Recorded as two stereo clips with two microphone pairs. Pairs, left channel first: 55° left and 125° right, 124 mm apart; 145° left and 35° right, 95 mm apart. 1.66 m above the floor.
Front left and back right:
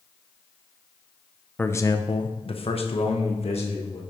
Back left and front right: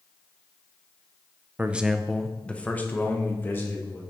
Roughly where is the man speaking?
Ahead.